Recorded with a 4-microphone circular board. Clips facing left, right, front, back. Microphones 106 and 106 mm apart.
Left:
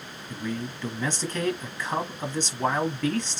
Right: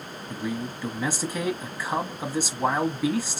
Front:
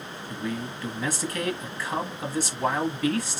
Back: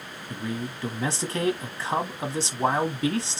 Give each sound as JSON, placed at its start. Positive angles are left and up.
{"t": 0.3, "sound": "a man speaking", "azimuth_deg": -160, "distance_m": 1.1}